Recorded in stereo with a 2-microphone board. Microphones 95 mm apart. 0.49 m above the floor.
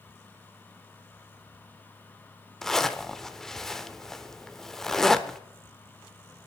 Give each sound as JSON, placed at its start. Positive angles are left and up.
{"t": 2.6, "sound": "a zipper", "side_deg": 5, "distance_m": 0.8}